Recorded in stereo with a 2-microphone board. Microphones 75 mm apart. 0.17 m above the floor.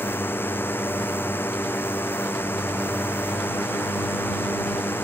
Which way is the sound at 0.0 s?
30° left (ahead or behind).